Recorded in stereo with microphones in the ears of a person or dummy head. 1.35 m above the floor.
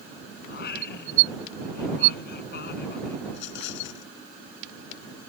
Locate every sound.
0.5 s singing: 65° left (ahead or behind)
3.3 s a rattle: 80° left